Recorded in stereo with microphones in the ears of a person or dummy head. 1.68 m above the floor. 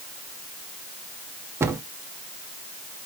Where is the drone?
I don't hear a drone.